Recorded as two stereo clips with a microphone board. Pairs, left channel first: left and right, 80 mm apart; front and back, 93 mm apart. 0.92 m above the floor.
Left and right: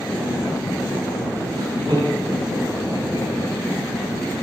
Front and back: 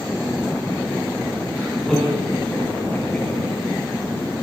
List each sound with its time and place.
1.5 s laughter: 95° right, 6 m; by 3.5 s 75° right, 7 m